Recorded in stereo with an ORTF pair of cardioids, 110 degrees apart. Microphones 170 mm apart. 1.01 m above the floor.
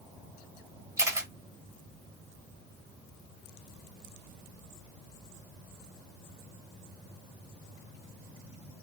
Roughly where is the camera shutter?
Ahead.